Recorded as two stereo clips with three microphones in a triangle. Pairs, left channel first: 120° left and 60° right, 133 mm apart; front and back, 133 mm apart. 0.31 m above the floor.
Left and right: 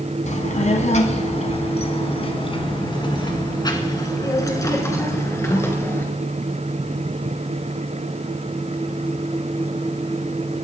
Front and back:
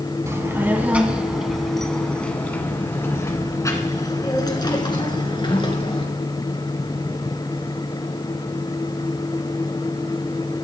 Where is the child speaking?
115° left, 1.9 m; by 6.0 s 50° left, 3.5 m.